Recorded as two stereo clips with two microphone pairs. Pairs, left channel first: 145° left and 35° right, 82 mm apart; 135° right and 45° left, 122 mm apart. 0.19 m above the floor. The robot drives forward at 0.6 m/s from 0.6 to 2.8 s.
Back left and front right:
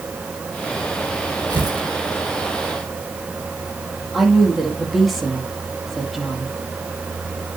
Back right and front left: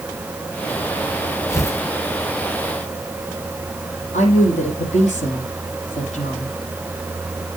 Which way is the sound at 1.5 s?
70° right.